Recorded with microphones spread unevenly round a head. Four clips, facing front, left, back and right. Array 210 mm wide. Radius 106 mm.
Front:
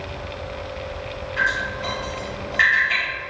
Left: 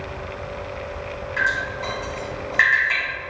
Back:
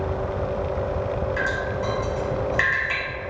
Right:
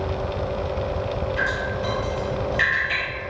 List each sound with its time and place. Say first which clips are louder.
1.4 s dripping: even, even; 160° left, 1.4 m